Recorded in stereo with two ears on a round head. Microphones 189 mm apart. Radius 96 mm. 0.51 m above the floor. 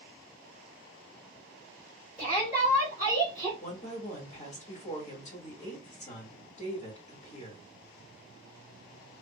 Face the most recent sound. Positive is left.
turn(degrees=35)  # may be behind; listen again after turning